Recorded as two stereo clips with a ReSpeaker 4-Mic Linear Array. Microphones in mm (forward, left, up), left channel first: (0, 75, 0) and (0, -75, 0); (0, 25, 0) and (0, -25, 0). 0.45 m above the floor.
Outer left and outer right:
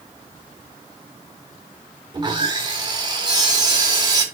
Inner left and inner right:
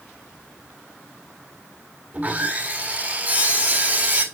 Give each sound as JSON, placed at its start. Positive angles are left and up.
{"t": 2.1, "sound": "sawing", "side_deg": -30, "distance_m": 1.7}